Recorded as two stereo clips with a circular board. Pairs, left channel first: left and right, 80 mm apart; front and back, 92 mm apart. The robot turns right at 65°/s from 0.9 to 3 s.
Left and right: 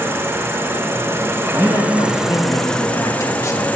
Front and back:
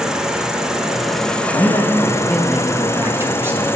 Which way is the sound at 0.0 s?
100° right.